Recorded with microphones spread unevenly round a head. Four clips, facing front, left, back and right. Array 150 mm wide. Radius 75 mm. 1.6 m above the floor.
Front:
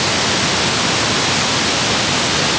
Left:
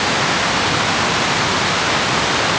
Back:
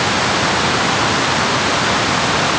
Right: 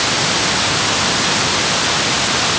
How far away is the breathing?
I don't hear breathing.